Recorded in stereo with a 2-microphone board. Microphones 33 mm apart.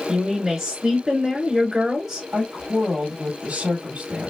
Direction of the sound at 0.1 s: 20° right (ahead or behind).